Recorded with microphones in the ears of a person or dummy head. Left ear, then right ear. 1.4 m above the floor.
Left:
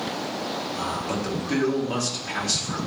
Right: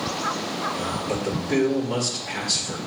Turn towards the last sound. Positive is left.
turn(degrees=55)  # may be behind; listen again after turning